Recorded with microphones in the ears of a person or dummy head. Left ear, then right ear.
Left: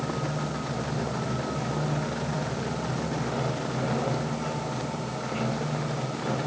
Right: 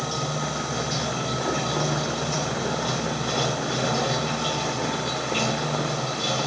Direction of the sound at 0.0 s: 85° right.